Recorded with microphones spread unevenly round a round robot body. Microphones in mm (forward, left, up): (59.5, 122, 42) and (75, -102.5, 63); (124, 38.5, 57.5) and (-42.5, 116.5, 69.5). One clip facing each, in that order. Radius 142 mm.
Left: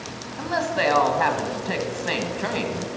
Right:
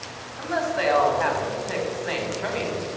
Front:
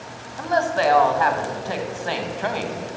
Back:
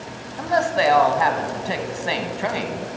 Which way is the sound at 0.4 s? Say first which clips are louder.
Left 1 dB, back 1 dB; 80° left.